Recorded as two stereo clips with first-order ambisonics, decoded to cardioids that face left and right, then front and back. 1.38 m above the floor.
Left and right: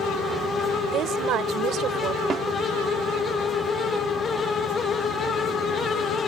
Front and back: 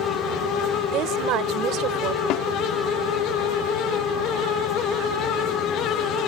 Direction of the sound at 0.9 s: 140° right.